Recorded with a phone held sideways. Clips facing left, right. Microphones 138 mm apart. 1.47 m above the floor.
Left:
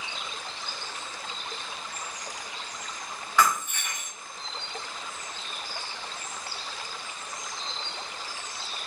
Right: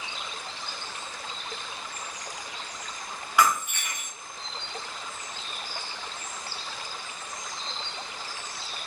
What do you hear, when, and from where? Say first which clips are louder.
3.4 s breaking glass: right 1 dB; 10° right (ahead or behind), 2.5 m